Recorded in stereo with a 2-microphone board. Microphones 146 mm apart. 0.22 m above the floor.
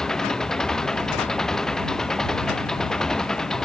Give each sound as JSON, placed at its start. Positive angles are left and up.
{"t": 0.0, "sound": "an engine running", "side_deg": 5}